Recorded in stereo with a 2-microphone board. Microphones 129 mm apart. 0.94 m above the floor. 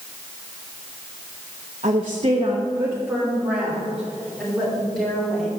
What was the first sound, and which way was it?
A woman speaking, 55° right (ahead or behind).